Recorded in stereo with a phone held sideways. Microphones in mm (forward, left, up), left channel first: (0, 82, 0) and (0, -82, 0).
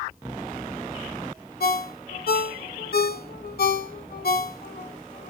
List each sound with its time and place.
1.6 s a ringtone: 80° left, 0.6 m